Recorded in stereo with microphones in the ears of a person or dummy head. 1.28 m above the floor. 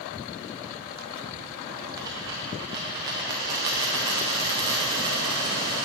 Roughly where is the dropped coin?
Centre.